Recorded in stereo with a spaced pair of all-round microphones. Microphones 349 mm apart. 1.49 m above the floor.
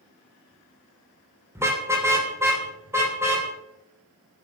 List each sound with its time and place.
1.6 s a car horn: 5° right (ahead or behind), 3 m